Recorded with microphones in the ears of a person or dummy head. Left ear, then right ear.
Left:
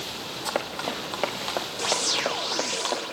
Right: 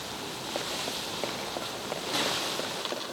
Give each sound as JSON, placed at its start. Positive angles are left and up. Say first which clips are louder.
{"t": 0.5, "sound": "running footsteps", "louder": "left 5 dB", "side_deg": 50, "distance_m": 3.5}